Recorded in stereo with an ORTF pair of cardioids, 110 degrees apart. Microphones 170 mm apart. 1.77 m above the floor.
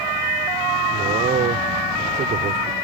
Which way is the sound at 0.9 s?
50° right.